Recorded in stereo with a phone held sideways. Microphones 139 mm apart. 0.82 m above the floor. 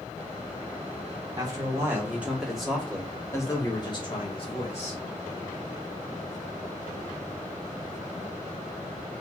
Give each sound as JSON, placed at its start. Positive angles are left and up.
{"t": 1.4, "sound": "a man speaking", "side_deg": -25, "distance_m": 1.8}